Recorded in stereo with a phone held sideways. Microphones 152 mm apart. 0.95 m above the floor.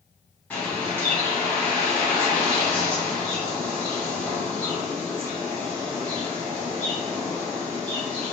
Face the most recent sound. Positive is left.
turn(degrees=10)  # may be behind; listen again after turning